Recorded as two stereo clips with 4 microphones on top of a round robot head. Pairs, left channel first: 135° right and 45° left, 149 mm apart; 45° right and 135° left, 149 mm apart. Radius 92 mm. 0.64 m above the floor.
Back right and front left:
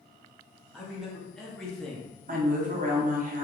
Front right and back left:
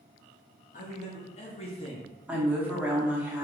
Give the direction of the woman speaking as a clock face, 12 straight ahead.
10 o'clock.